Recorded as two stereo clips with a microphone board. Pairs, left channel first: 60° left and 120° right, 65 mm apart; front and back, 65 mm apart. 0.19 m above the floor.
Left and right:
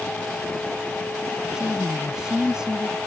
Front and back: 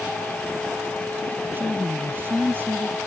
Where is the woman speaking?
170° left.